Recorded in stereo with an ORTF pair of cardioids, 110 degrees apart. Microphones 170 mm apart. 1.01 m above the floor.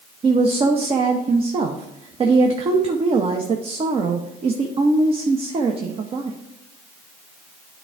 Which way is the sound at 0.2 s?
35° right.